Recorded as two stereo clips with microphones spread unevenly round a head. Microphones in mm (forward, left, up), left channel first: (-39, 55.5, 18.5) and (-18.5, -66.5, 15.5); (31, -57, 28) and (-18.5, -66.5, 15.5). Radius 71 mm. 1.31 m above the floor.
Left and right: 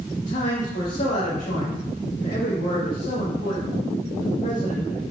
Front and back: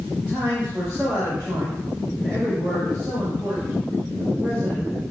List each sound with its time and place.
0.2 s a man speaking: 120° left, 2.5 m